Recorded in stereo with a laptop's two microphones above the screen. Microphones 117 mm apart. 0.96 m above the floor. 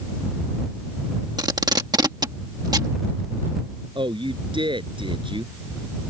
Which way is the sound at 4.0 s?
45° right (ahead or behind).